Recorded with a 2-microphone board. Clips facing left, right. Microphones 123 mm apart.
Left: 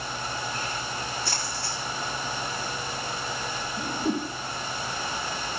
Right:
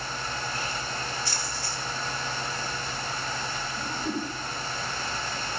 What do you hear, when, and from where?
1.2 s a splash: 65° left (ahead or behind), 5 m
3.8 s a whoosh: 30° left (ahead or behind), 2.5 m